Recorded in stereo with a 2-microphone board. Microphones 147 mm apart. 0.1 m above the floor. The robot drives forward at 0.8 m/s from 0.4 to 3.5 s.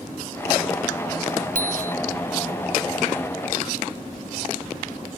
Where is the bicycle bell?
70° right (ahead or behind); by 1.9 s 65° right (ahead or behind).